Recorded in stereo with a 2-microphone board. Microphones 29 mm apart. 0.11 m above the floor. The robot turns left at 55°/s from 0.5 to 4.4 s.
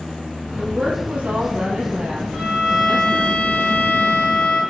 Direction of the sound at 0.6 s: 65° right.